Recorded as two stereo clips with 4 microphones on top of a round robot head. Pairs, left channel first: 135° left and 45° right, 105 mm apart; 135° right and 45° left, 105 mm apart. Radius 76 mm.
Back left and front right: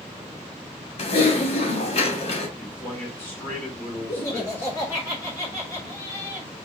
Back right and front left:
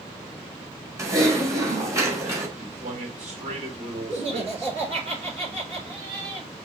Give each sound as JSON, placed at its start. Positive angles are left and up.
{"t": 1.0, "sound": "typing on a keyboard", "azimuth_deg": 105, "distance_m": 1.9}
{"t": 2.6, "sound": "a man speaking", "azimuth_deg": 60, "distance_m": 2.5}
{"t": 4.1, "sound": "laughter", "azimuth_deg": 75, "distance_m": 3.0}